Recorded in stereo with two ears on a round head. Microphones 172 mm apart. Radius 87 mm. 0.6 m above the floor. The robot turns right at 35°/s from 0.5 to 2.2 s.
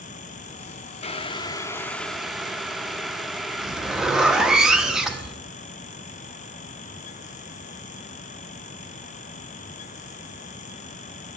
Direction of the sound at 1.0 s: 140° left.